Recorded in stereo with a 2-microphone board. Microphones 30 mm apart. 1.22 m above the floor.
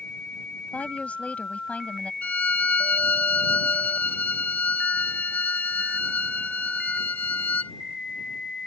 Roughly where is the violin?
Left.